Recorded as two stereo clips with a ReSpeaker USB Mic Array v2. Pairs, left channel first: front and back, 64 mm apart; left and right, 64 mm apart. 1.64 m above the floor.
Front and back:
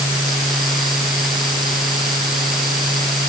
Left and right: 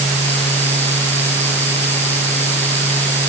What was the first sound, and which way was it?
Only background noise.